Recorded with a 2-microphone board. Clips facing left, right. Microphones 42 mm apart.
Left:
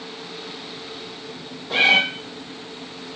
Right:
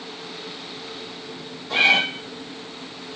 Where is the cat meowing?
15° left (ahead or behind), 1.3 m.